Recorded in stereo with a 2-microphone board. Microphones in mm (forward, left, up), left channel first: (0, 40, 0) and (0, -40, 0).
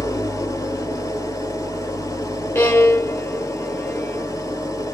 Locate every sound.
0.0 s an engine running: 40° left (ahead or behind), 1.1 m
2.5 s a violin: 30° left (ahead or behind), 1.0 m